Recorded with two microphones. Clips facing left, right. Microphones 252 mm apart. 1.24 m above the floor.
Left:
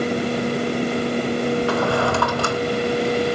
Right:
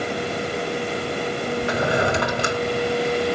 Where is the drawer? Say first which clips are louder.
Left 2 dB; 20° right (ahead or behind), 1.3 m.